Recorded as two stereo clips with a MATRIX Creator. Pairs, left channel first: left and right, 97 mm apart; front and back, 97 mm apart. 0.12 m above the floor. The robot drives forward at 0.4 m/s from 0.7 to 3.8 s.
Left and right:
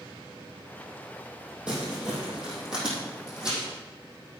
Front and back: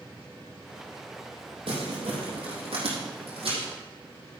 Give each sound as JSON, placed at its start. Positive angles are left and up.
{"t": 1.7, "sound": "crumpling", "azimuth_deg": -170, "distance_m": 3.0}